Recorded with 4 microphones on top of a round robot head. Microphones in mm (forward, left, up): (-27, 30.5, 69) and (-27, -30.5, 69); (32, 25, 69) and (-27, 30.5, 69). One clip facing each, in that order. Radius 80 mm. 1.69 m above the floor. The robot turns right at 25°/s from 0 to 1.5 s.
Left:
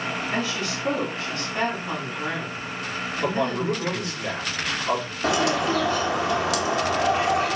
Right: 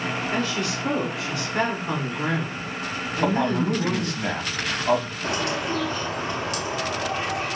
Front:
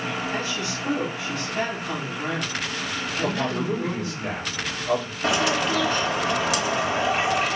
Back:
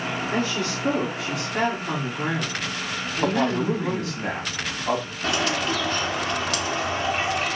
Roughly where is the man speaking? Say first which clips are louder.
Right 2 dB, back 4 dB; behind right.